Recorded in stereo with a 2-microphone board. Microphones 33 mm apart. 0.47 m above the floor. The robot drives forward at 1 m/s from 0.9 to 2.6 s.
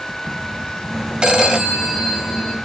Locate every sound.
1.2 s a phone ringing: 30° right (ahead or behind), 1.6 m; by 2.6 s 20° right (ahead or behind), 3 m